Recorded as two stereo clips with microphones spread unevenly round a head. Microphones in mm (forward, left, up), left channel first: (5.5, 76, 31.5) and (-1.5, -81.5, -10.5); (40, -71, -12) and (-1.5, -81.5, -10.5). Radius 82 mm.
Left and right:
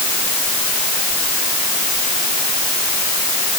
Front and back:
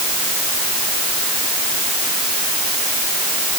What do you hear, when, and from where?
Only background noise.